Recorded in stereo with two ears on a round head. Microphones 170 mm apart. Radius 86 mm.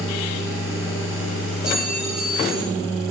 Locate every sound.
1.6 s a clink: 5° right (ahead or behind), 3.5 m